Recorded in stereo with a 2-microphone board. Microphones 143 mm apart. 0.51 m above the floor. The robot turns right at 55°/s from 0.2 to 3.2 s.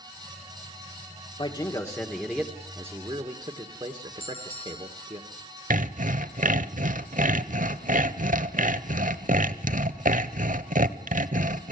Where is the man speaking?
125° left, 1.5 m; by 5.2 s 135° right, 1.5 m.